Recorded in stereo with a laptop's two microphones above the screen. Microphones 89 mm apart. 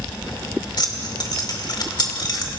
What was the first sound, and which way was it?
Keys jangling, 50° left (ahead or behind).